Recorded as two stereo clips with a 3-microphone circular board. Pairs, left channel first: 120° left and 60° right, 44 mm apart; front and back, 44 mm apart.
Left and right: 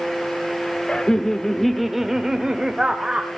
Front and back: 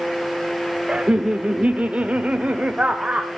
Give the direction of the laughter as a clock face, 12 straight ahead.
7 o'clock.